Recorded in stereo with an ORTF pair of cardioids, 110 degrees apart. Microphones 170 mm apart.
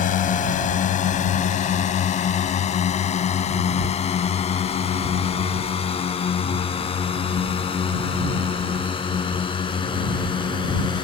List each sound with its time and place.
0.0 s a drone: 55° left; by 11.1 s 30° left